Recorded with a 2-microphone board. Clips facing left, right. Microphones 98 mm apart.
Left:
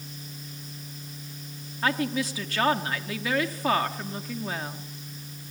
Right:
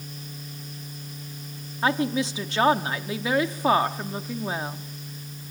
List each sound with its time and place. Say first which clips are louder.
1.8 s a woman speaking: right 3 dB; 25° right (ahead or behind), 1.0 m